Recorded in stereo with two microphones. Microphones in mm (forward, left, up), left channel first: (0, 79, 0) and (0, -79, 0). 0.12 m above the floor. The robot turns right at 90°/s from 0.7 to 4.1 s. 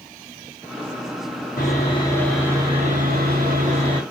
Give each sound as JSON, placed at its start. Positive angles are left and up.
{"t": 1.6, "sound": "sawing", "azimuth_deg": 110, "distance_m": 4.0}